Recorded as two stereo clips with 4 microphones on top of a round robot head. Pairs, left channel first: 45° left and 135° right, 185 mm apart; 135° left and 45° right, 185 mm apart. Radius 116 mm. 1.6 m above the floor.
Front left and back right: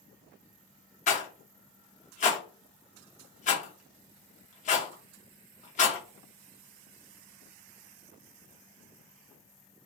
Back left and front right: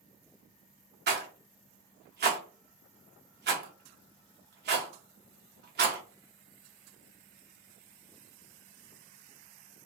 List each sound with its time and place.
1.1 s a rattle: 10° right, 0.7 m